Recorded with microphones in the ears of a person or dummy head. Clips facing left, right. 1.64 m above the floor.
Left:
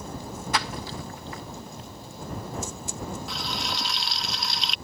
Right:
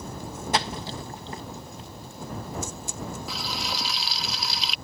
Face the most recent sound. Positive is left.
turn(degrees=0)  # may be behind; listen again after turning